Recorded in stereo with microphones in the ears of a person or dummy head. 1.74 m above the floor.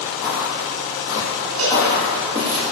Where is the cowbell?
75° right (ahead or behind), 5 m.